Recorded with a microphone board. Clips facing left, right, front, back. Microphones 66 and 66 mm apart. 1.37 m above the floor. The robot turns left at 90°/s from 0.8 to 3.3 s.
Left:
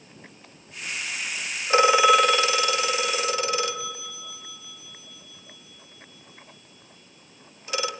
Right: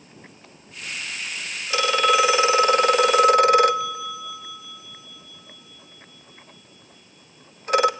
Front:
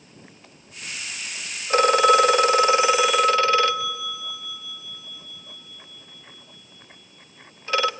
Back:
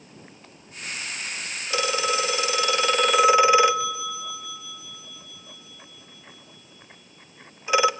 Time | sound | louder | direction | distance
1.7 | a phone ringing | left 3 dB, front 9 dB | 40° left | 0.6 m